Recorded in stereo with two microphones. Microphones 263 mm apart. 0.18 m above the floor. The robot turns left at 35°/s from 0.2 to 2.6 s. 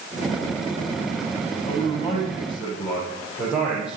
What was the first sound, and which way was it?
A man speaking, 30° left.